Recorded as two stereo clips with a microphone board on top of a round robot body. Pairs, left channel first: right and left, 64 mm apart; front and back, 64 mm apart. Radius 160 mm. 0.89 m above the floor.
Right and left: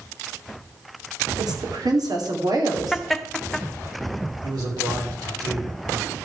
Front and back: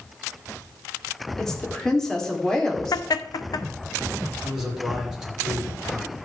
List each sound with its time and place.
1.4 s a woman speaking: 85° left, 2.5 m
2.9 s laughter: 5° right, 0.9 m
4.4 s a man speaking: 100° left, 4 m